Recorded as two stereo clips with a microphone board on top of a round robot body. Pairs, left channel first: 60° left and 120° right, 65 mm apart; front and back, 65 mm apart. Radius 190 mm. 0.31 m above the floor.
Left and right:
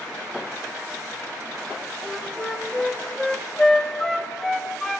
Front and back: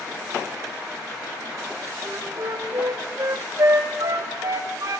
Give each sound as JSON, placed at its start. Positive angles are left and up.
{"t": 2.0, "sound": "a flute", "azimuth_deg": 140, "distance_m": 0.7}